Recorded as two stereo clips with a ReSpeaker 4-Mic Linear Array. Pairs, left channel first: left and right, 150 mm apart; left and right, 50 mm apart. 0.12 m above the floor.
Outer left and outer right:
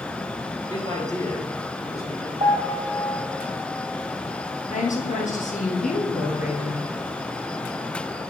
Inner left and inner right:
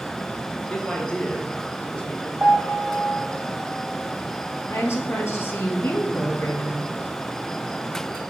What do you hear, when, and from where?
0.7 s a man speaking: 30° left (ahead or behind), 2.5 m; by 2.3 s 20° left (ahead or behind), 1.8 m
2.4 s a piano: 35° right (ahead or behind), 1.5 m
4.7 s a woman speaking: 60° left (ahead or behind), 2 m